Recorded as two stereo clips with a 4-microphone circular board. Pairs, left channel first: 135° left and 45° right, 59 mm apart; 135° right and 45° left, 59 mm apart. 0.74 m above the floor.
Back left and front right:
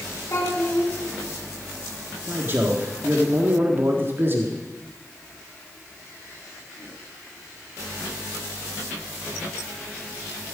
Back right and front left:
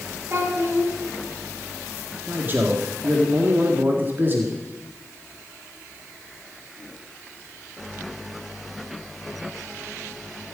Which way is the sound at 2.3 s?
Straight ahead.